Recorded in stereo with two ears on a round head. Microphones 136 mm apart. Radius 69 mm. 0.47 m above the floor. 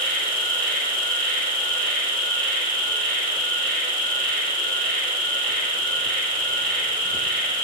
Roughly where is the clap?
I don't hear a clap.